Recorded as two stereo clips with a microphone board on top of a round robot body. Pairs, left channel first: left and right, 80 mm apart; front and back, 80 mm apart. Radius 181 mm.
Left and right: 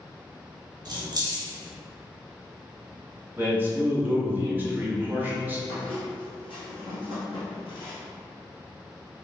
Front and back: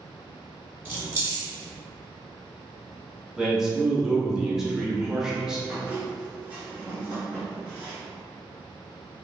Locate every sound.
0.8 s keys jangling: 115° right, 1.3 m
3.4 s a man speaking: 110° right, 1.0 m
5.7 s a squeak: 105° left, 0.9 m